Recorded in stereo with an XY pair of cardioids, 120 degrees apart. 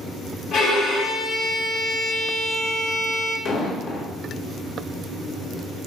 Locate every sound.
0.5 s a violin: 65° left, 0.8 m
3.5 s an explosion: 55° left, 0.8 m